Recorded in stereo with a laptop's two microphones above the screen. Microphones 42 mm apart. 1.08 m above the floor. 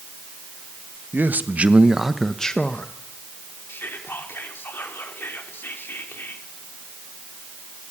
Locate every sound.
1.1 s a man speaking: 55° right (ahead or behind), 1.5 m; by 2.9 s 35° left (ahead or behind), 1.4 m
3.7 s whispering: 55° left (ahead or behind), 3.5 m